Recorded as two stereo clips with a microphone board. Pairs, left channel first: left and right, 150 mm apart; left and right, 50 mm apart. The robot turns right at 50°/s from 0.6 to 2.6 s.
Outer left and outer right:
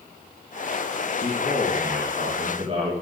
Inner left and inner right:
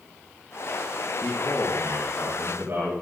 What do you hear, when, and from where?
1.2 s a man speaking: 110° right, 5 m; by 2.9 s 40° right, 5 m